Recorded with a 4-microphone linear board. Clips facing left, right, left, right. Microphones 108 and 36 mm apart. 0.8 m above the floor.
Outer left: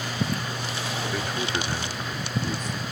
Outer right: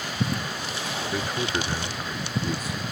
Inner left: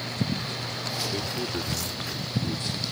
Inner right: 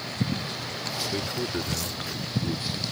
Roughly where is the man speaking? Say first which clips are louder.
Outer right 3 dB, inner right 1 dB; centre.